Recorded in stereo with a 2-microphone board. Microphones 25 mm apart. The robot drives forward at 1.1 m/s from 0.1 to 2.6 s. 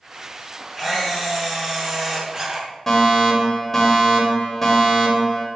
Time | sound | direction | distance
0.8 | a camera shutter | 15° right (ahead or behind) | 4 m
2.9 | a fire alarm | 15° left (ahead or behind) | 2.5 m